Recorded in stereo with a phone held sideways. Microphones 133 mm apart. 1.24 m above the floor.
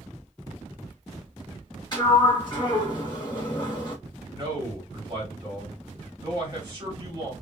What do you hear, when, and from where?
1.9 s a sliding door: 35° left (ahead or behind), 0.9 m
4.3 s a man speaking: 35° right (ahead or behind), 1.9 m